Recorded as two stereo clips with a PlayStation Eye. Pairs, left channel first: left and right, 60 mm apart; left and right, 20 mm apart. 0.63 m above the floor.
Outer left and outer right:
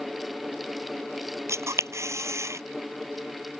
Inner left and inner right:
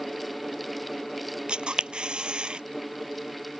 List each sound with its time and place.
1.5 s a camera shutter: 55° right (ahead or behind)